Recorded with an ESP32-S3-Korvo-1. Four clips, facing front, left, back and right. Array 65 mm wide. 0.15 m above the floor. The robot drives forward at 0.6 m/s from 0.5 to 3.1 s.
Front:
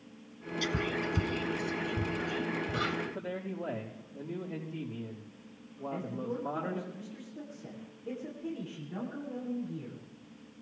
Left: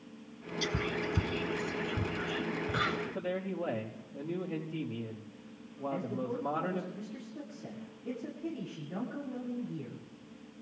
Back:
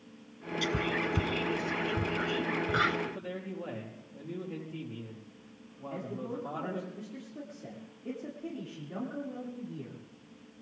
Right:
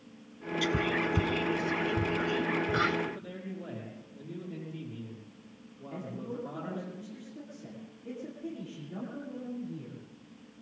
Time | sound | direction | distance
0.6 | whispering | 110° right | 1.1 m
3.1 | a man speaking | 110° left | 4.5 m
5.9 | a man speaking | 160° left | 9.5 m